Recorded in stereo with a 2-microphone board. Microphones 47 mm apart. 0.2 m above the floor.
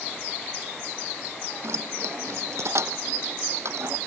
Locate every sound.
1.6 s keys jangling: 75° right (ahead or behind)